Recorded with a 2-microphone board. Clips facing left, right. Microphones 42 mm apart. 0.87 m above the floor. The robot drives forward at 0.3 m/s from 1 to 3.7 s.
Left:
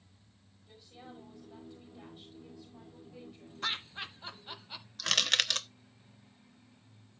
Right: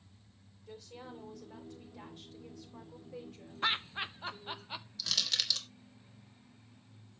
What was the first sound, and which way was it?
A woman speaking, 70° right (ahead or behind).